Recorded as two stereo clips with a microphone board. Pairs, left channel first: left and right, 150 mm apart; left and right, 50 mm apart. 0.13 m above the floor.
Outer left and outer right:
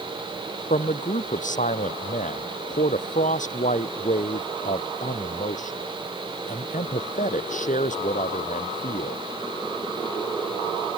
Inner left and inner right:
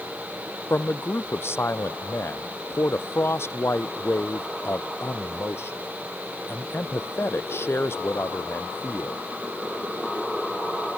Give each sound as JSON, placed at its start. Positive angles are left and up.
{"t": 0.7, "sound": "a man speaking", "side_deg": 55}